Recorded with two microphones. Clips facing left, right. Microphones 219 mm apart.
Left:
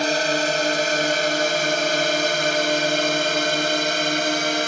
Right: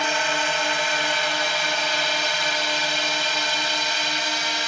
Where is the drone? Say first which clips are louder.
Left 6 dB; 45° left (ahead or behind); by 4.7 s 60° left (ahead or behind).